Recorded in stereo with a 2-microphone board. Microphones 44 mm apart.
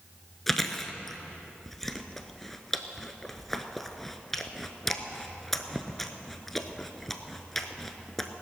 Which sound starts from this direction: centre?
Chewing, at 0.5 s.